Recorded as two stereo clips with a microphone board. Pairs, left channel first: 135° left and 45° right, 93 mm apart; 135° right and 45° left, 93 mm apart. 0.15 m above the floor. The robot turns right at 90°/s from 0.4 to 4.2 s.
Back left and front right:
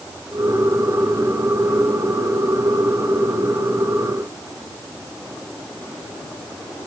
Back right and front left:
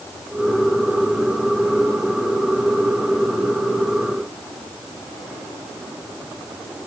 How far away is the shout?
I don't hear a shout.